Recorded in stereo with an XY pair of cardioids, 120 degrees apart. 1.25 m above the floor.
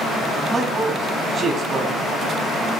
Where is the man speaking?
35° right, 8 m.